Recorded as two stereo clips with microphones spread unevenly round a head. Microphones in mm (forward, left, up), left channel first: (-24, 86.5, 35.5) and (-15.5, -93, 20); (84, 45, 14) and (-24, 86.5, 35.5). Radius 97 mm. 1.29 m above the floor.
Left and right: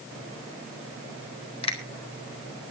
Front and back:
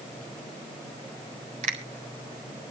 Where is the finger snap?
150° left, 4 m.